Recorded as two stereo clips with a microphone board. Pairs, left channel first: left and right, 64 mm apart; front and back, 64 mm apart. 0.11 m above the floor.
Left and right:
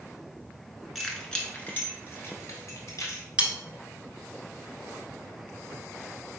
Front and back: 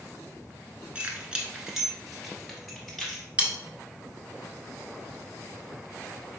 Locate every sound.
0.9 s keys jangling: 175° right, 0.8 m; by 3.2 s 85° left, 1.5 m
3.4 s cutlery clinking: 140° right, 0.7 m